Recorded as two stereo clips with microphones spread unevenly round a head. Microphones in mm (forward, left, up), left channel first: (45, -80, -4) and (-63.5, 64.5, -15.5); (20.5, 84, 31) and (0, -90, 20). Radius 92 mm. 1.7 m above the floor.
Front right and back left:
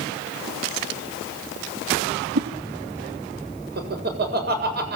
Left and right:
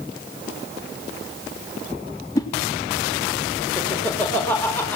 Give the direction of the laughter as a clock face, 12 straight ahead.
7 o'clock.